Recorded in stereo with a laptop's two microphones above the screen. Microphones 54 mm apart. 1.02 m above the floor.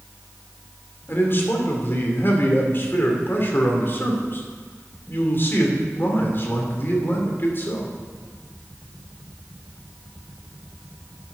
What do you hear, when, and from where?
1.1 s a man speaking: 45° left (ahead or behind), 2.5 m